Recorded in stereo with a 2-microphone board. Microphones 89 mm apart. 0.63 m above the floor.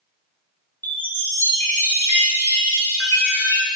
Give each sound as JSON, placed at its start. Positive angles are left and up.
{"t": 0.8, "sound": "a chime", "side_deg": 20, "distance_m": 2.5}